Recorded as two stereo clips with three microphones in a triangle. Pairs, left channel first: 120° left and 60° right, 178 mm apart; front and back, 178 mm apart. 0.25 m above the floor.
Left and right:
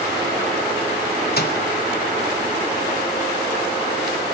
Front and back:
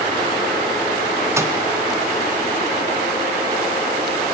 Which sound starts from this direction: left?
A microwave, at 1.4 s.